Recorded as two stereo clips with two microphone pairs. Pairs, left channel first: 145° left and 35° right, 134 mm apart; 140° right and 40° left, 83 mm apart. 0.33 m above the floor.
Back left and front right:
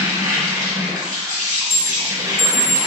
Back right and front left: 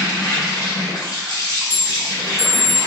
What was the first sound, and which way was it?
An insect, 95° right.